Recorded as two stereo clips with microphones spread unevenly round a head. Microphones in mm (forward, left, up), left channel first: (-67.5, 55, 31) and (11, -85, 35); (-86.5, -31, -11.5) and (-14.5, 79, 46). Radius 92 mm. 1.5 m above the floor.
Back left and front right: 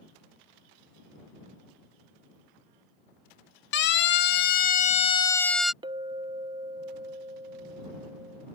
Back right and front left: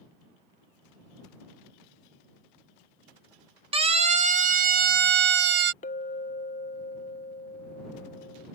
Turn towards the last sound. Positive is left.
turn(degrees=-80)